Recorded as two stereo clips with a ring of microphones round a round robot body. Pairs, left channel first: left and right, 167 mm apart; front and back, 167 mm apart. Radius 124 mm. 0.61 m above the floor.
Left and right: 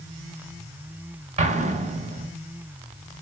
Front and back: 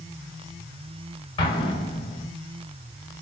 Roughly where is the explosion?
Ahead right.